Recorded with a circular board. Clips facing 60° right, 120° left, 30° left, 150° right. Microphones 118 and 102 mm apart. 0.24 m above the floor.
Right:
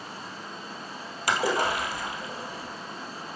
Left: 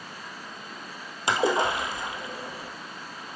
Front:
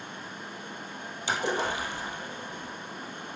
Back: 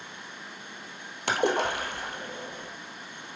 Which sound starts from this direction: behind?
A splash, at 1.3 s.